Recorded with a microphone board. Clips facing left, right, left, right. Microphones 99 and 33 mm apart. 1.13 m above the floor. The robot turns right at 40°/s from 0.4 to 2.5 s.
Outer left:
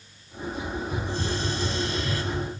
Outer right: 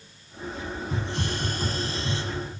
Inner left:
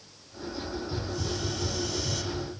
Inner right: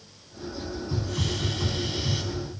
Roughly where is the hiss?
Right.